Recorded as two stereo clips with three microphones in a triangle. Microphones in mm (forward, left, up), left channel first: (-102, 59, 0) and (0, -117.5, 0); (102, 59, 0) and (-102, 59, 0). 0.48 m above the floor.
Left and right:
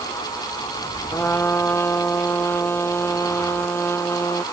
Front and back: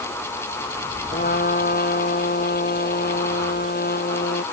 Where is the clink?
No clink in this recording.